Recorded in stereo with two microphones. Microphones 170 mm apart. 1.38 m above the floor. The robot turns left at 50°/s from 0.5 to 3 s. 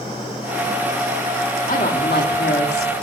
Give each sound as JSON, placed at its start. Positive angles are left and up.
{"t": 1.7, "sound": "a woman speaking", "azimuth_deg": 130, "distance_m": 4.0}